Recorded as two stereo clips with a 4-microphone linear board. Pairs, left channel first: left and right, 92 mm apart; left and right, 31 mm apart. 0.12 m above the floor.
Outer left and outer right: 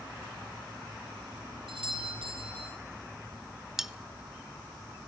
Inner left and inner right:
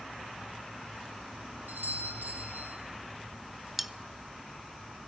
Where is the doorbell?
70° right (ahead or behind), 6 m.